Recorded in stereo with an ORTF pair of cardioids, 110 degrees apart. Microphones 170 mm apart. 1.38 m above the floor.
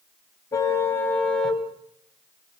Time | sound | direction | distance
0.5 | a car horn | 20° left | 5 m